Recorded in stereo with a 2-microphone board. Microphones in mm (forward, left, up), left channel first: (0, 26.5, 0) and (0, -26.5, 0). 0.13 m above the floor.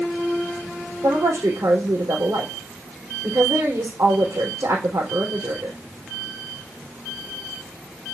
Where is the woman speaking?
75° right (ahead or behind), 4.5 m.